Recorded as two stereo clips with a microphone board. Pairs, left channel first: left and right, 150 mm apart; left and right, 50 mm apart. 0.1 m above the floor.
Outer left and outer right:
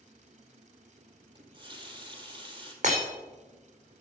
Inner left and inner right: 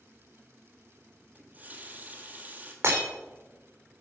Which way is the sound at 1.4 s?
30° right (ahead or behind).